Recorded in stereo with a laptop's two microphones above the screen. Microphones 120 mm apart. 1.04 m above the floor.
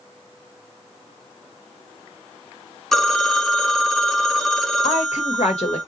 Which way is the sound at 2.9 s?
5° left (ahead or behind).